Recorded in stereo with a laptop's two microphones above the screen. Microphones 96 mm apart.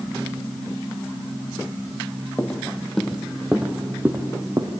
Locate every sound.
2.4 s footsteps: 15° left (ahead or behind), 2 m; by 4.7 s 35° right (ahead or behind), 2.5 m